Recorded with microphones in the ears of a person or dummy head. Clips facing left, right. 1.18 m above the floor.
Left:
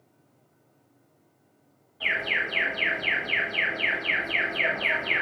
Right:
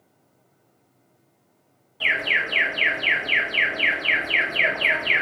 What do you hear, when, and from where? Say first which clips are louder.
2.0 s an alarm: right 3 dB; 50° right (ahead or behind), 0.9 m